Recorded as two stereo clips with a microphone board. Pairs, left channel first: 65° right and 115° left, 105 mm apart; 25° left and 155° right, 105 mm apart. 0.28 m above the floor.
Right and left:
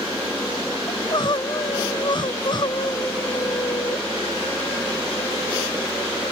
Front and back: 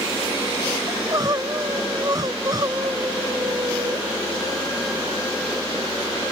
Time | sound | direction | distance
0.9 | crying | 105° right | ?